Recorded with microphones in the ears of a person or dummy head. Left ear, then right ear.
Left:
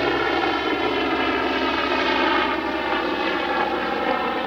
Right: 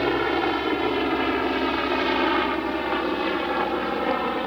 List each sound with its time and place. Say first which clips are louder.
0.0 s a helicopter: left 2 dB; 15° left (ahead or behind)